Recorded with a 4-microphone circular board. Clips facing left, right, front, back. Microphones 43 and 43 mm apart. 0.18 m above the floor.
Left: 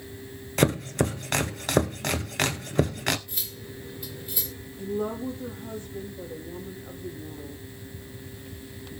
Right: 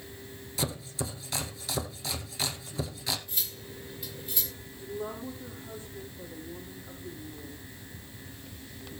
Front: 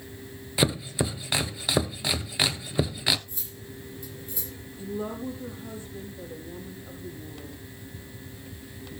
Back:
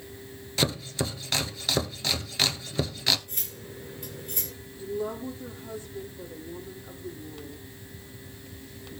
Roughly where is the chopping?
Left.